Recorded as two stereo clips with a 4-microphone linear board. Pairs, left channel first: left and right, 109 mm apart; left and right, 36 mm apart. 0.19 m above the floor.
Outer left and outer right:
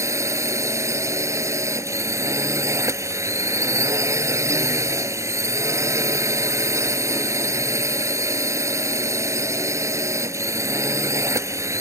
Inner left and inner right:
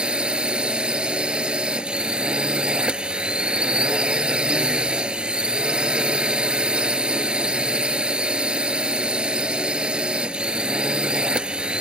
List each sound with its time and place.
0.0 s a drone: 25° right (ahead or behind)